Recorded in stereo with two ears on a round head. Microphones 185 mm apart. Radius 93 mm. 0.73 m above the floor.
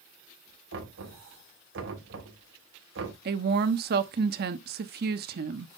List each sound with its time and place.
0.7 s knocking: 65° right (ahead or behind), 3 m
3.2 s a woman speaking: 50° right (ahead or behind), 1.1 m